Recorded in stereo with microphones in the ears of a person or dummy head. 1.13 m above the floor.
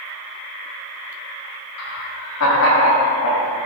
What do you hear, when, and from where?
1.8 s laughter: 80° left, 3.5 m; by 3.6 s 65° left (ahead or behind), 2 m